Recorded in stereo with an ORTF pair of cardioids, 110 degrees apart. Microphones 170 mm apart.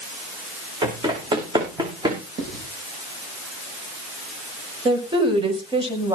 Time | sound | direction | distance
0.8 | running footsteps | 25° right | 7 m
2.4 | writing | 70° right | 8 m
4.8 | a woman speaking | 30° right | 7 m